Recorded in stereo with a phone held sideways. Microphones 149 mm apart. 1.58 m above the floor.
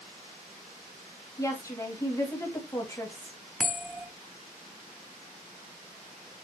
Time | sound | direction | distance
1.4 | a woman speaking | 20° left (ahead or behind) | 2 m
3.6 | a bell | centre (ahead or behind) | 1.7 m